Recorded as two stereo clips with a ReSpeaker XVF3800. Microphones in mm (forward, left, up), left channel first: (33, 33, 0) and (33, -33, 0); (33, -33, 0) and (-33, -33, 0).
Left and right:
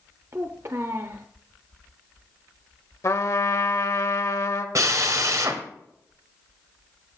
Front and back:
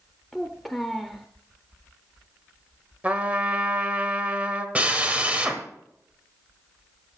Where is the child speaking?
85° right, 0.7 m.